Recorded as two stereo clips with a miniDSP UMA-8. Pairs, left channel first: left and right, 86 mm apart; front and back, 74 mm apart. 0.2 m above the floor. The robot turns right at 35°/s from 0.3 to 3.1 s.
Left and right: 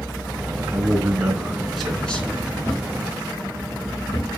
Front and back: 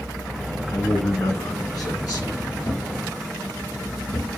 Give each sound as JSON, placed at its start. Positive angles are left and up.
{"t": 0.7, "sound": "a man speaking", "azimuth_deg": -35, "distance_m": 2.5}
{"t": 2.6, "sound": "a thud", "azimuth_deg": 40, "distance_m": 5.0}